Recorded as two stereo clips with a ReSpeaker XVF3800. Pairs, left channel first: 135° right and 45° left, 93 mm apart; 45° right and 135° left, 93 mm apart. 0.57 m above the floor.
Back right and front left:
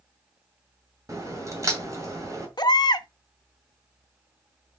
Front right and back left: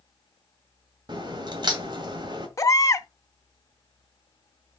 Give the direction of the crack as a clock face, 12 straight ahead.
9 o'clock.